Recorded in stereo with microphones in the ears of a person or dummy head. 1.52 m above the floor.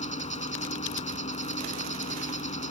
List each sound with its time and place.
0.0 s an insect: 35° left (ahead or behind)